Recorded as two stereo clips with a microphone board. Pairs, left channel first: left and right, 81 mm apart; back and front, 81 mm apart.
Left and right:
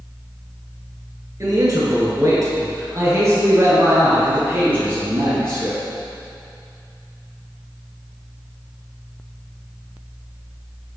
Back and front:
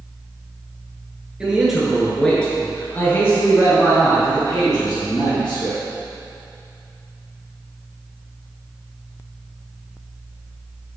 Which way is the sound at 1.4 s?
75° right.